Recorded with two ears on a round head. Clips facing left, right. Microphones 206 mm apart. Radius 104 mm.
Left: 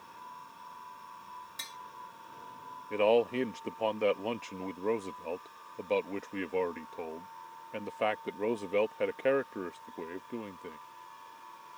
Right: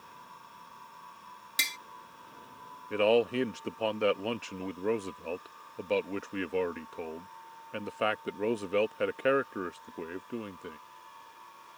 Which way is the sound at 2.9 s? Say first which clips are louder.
Right 1 dB; 10° right (ahead or behind).